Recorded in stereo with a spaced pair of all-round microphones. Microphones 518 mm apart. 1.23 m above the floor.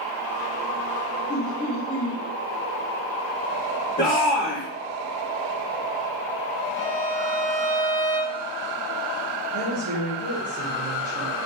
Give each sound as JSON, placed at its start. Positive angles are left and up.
{"t": 1.3, "sound": "laughter", "side_deg": 10, "distance_m": 3.0}
{"t": 4.0, "sound": "a shout", "side_deg": 15, "distance_m": 2.5}
{"t": 6.8, "sound": "a violin", "side_deg": -75, "distance_m": 1.4}
{"t": 9.5, "sound": "a woman speaking", "side_deg": -30, "distance_m": 2.0}